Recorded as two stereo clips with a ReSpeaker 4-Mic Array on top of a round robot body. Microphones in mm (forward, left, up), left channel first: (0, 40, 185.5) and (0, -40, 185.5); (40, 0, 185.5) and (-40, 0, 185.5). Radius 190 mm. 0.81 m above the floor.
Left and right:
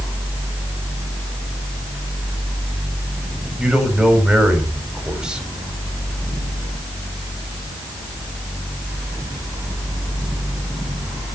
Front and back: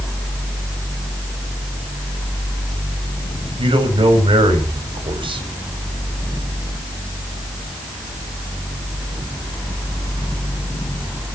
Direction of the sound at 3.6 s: 170° right.